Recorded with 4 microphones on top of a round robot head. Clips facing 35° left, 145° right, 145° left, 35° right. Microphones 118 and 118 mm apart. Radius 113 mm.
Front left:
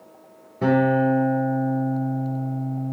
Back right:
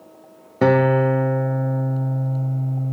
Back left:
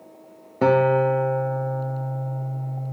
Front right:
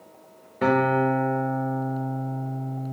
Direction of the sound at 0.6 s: 160° right.